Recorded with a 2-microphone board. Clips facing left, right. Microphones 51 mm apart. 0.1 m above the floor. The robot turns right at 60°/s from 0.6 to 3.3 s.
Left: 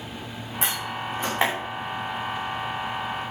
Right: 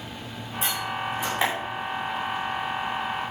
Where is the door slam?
75° left (ahead or behind), 6.5 m; by 1.5 s 20° left (ahead or behind), 6.5 m.